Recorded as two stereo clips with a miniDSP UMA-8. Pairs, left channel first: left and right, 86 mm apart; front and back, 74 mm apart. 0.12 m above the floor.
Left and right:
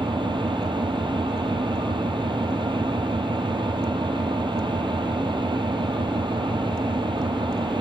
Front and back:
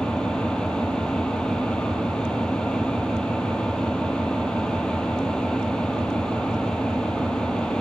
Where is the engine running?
80° right, 2.5 m.